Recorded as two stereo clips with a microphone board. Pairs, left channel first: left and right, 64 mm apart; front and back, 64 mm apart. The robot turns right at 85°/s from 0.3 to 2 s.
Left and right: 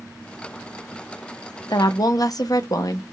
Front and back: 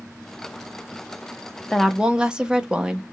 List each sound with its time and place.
1.7 s a woman speaking: 80° left, 0.7 m; by 3.0 s 105° left, 0.7 m